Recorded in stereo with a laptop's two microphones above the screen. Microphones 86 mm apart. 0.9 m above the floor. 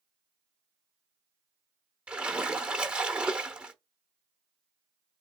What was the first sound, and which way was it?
A splash, 15° right (ahead or behind).